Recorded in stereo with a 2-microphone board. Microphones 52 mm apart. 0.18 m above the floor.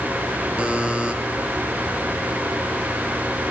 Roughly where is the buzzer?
Centre.